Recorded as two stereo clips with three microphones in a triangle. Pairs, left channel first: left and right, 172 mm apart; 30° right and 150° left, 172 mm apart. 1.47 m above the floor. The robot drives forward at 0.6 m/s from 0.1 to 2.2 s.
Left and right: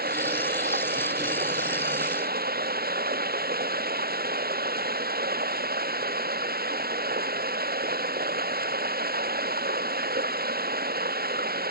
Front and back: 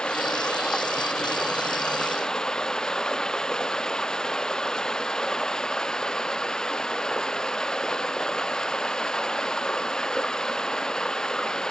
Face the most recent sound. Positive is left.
turn(degrees=-115)